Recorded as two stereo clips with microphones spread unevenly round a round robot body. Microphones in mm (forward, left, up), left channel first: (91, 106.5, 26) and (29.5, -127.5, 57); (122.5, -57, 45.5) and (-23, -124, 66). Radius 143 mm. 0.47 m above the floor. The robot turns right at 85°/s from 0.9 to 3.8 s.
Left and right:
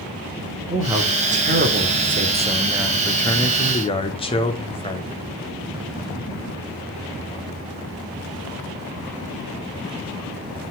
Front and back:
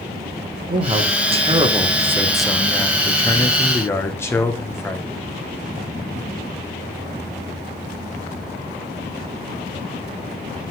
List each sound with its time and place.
0.7 s a man speaking: straight behind, 1.5 m; by 5.2 s 65° left, 1.5 m